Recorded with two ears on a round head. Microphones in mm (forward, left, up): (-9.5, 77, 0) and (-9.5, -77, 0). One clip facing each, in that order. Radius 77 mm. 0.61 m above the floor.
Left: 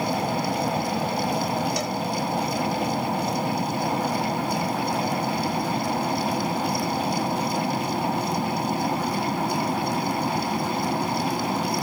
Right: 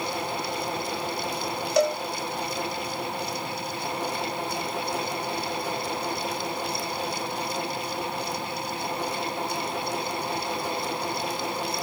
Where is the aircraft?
35° left (ahead or behind); by 11.8 s 30° left (ahead or behind).